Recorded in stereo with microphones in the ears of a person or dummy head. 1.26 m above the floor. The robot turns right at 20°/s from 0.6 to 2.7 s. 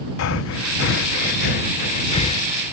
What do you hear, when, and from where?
0.2 s breathing: 65° left (ahead or behind); by 2.5 s 30° left (ahead or behind)